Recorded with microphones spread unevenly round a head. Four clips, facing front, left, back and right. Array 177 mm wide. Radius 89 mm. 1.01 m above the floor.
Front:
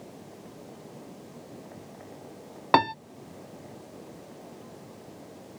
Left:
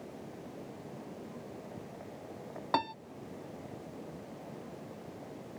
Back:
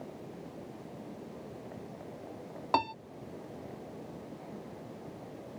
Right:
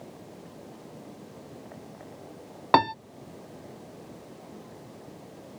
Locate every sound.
2.7 s a piano: 45° right